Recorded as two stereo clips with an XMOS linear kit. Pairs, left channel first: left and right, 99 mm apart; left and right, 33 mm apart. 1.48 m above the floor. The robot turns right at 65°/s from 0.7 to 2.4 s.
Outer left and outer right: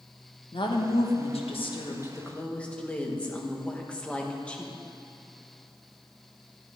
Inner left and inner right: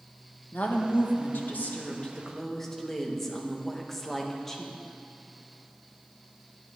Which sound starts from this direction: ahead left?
A woman speaking, at 0.5 s.